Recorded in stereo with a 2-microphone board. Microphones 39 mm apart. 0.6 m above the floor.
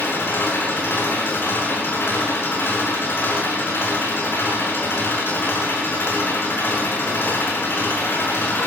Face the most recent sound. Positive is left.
turn(degrees=75)  # may be behind; listen again after turning